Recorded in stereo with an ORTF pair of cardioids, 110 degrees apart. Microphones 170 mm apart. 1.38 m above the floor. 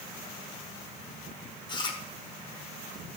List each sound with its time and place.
1.7 s chewing: 30° left, 1.4 m